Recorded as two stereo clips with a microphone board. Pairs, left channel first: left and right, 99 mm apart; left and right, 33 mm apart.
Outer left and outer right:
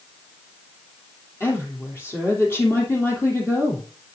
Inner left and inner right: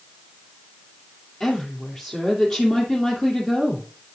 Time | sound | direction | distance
1.4 | a woman speaking | 25° left (ahead or behind) | 3 m